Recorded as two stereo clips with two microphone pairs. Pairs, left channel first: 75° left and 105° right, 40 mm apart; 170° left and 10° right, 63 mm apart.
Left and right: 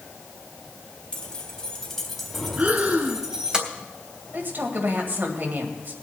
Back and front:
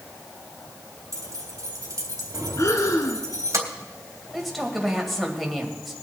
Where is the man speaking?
105° right, 2.0 m.